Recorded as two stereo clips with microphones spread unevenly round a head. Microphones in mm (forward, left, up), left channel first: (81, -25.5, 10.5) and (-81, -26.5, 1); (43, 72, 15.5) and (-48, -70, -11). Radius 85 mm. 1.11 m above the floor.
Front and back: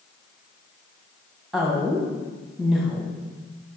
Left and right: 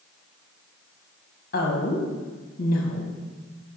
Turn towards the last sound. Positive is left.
turn(degrees=95)